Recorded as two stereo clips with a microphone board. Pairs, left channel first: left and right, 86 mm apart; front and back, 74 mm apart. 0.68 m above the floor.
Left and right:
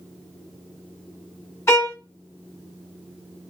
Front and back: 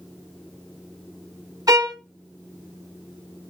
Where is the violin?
150° left, 0.7 m.